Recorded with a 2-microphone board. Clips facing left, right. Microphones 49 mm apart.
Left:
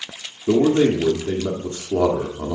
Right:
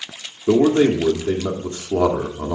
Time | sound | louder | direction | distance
0.5 | a man speaking | right 1 dB | 25° right (ahead or behind) | 1.0 m